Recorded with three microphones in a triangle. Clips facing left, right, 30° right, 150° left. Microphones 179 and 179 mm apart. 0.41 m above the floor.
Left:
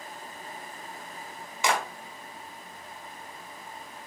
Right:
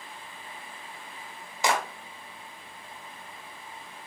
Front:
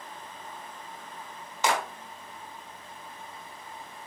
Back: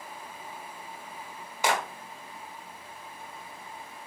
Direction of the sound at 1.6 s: 135° right.